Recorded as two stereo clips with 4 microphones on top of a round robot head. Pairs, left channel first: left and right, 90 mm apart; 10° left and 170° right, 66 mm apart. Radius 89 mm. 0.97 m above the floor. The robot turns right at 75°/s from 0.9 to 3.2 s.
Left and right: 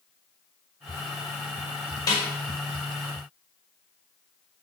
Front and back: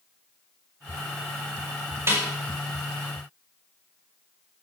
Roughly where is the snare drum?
Behind left.